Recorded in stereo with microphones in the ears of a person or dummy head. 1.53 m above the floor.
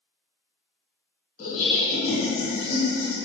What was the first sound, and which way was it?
Laughter, 40° left (ahead or behind).